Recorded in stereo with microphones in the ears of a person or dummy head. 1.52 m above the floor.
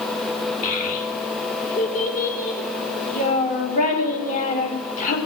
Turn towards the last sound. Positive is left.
turn(degrees=40)  # may be behind; listen again after turning